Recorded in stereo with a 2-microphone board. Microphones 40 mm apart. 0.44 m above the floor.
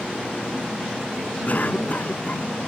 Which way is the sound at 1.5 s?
45° left (ahead or behind).